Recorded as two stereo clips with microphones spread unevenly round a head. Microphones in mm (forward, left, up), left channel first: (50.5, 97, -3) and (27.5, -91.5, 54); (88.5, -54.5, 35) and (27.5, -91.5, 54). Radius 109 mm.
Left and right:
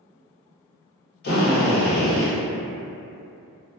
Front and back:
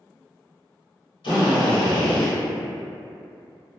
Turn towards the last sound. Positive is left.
turn(degrees=45)